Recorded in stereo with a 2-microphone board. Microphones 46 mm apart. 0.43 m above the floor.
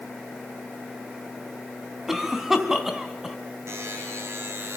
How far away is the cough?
About 4 m.